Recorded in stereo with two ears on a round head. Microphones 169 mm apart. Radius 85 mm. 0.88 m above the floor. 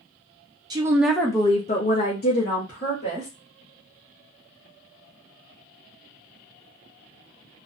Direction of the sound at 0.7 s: 20° right (ahead or behind).